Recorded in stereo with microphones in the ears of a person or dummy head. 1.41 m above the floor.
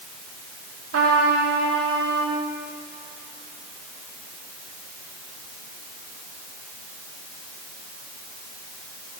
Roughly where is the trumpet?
Right.